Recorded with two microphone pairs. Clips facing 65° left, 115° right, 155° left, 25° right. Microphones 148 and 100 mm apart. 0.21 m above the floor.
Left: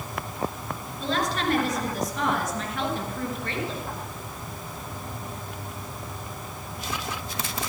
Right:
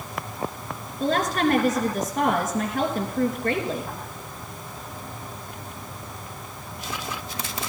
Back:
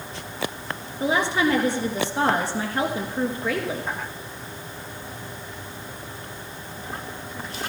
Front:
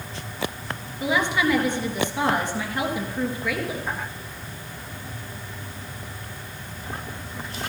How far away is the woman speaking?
About 2.5 m.